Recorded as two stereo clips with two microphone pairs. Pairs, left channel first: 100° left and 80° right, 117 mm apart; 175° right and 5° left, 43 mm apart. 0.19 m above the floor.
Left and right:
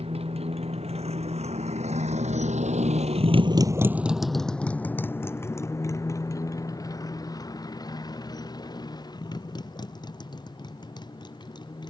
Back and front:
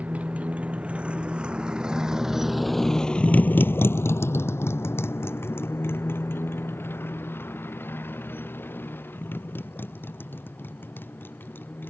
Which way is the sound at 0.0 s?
50° right.